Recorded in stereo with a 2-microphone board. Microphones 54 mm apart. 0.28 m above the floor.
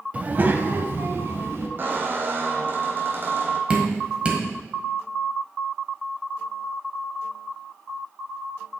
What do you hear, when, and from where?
0.1 s a child speaking: 25° right (ahead or behind), 0.6 m; by 1.7 s 50° right (ahead or behind), 1.6 m
1.8 s a squeak: 40° right (ahead or behind), 1.0 m
3.7 s dripping: 20° right (ahead or behind), 1.6 m